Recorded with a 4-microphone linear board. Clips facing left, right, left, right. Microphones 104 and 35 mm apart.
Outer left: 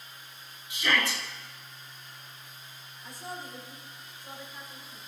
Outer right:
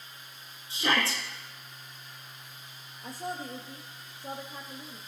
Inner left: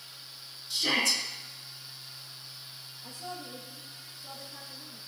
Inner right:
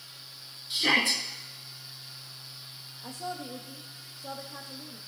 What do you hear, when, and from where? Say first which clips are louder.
0.7 s a shout: outer right 1 dB, inner right 3 dB; 35° right (ahead or behind), 2.0 m
3.0 s a woman speaking: outer right 4 dB, inner right 5 dB; 60° right (ahead or behind), 3.5 m